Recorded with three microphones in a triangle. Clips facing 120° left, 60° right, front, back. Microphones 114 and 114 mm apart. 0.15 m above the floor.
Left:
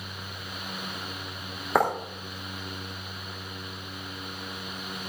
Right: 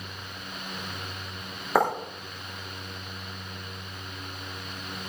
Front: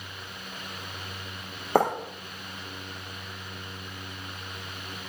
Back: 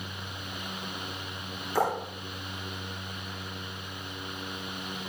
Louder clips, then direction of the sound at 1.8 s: Even, front 5 dB; 30° left.